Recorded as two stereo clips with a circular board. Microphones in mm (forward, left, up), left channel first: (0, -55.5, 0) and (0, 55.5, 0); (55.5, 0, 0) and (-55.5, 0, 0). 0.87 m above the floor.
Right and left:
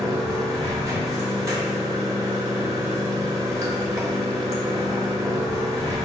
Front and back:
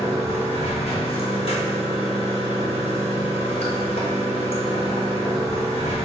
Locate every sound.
0.0 s running water: 30° left, 0.8 m